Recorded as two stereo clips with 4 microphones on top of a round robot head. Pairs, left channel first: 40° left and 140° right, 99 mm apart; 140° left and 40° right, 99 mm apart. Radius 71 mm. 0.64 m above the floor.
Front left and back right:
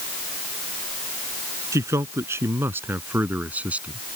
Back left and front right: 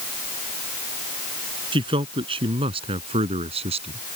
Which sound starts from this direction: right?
A man speaking, at 1.7 s.